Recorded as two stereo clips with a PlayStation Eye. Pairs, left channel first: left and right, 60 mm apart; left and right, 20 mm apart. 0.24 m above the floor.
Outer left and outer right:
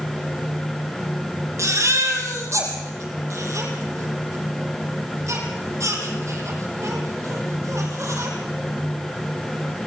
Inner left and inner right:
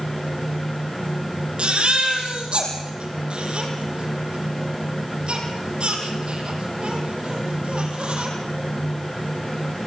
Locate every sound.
1.6 s a baby crying: 50° right (ahead or behind), 5.5 m